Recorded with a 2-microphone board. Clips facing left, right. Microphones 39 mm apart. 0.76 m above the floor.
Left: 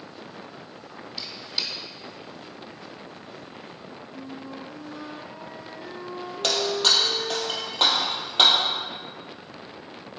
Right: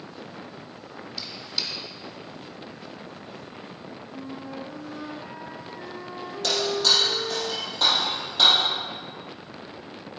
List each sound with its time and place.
1.2 s a squeak: 15° left (ahead or behind), 2.5 m
4.1 s a flute: 20° right (ahead or behind), 1.2 m
6.4 s breaking glass: 50° left (ahead or behind), 3 m